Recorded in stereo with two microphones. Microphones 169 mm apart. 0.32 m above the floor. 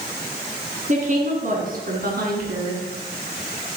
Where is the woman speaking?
45° right (ahead or behind), 3 m; by 2.8 s 70° right (ahead or behind), 3 m.